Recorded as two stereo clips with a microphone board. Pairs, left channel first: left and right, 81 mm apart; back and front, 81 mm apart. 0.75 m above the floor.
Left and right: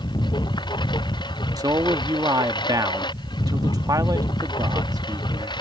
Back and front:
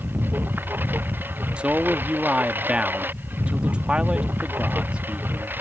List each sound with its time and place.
0.0 s a lawn mower: 65° left
1.6 s a man speaking: 75° right